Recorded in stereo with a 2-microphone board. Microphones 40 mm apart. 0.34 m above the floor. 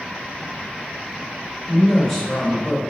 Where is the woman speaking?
5° left (ahead or behind), 1.1 m.